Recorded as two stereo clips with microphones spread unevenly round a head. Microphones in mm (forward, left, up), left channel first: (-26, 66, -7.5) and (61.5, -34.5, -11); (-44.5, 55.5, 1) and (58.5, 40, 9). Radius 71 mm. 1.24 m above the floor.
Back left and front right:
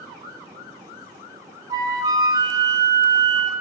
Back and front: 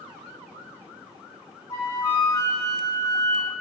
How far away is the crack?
I don't hear a crack.